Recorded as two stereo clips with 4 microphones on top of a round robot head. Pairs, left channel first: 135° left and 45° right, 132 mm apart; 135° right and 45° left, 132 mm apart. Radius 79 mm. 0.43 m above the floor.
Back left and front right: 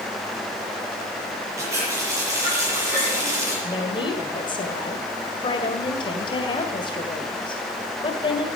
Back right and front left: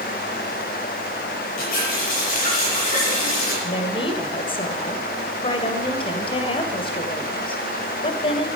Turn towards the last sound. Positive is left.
turn(degrees=180)